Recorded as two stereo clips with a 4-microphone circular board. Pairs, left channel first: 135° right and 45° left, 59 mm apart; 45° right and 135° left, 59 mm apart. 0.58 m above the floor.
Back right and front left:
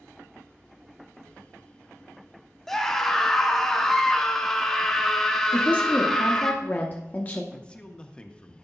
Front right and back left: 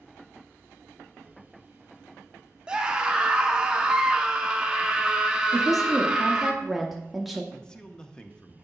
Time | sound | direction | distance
2.7 | a scream | 160° left | 0.7 m
5.5 | a woman speaking | 140° right | 0.7 m
7.5 | a man speaking | 100° right | 0.6 m